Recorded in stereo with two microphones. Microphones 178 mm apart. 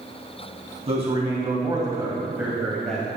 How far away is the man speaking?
About 2.5 m.